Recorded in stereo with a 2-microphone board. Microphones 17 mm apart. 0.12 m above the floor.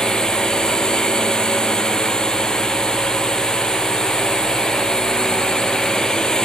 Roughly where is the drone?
Left.